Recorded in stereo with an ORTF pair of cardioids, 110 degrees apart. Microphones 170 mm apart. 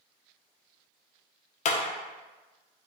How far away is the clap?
About 0.7 m.